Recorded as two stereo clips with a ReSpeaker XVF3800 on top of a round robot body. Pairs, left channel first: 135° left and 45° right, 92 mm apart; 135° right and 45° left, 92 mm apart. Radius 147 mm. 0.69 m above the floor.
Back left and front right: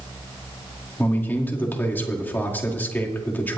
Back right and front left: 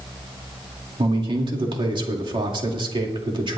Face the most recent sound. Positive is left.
turn(degrees=65)